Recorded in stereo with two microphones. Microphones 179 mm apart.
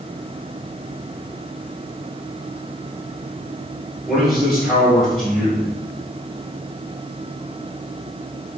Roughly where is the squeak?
I don't hear a squeak.